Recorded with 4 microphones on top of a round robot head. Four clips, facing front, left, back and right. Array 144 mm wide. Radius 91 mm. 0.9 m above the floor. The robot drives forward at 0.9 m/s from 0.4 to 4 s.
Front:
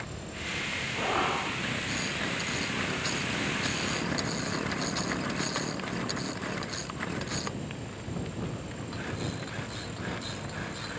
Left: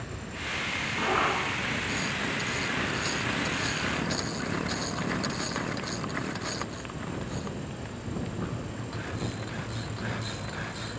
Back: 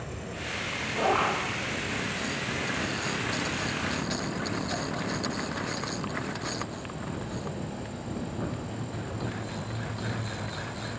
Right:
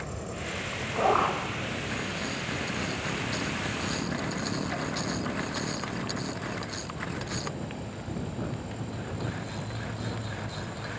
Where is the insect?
115° right, 6 m; by 11.0 s 135° right, 8 m.